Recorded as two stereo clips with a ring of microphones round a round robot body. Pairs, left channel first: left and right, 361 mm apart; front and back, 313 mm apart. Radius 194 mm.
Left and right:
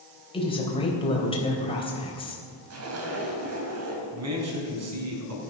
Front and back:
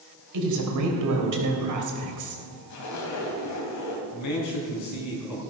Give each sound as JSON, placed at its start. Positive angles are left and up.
{"t": 0.3, "sound": "a woman speaking", "azimuth_deg": 165, "distance_m": 3.5}
{"t": 2.7, "sound": "a zipper", "azimuth_deg": -40, "distance_m": 2.5}
{"t": 4.1, "sound": "a man speaking", "azimuth_deg": -40, "distance_m": 4.5}